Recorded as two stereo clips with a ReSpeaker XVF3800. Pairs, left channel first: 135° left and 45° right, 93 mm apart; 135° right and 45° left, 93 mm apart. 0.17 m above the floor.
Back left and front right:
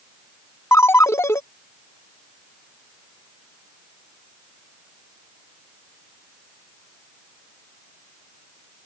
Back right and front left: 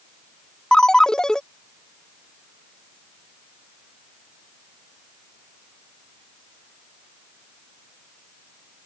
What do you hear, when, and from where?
0.7 s a ringtone: 155° left